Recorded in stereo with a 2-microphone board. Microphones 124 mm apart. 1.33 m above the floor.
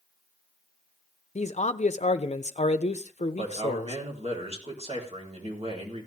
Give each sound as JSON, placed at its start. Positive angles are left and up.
{"t": 1.4, "sound": "a man speaking", "side_deg": 65, "distance_m": 0.6}
{"t": 3.4, "sound": "a man speaking", "side_deg": -55, "distance_m": 4.0}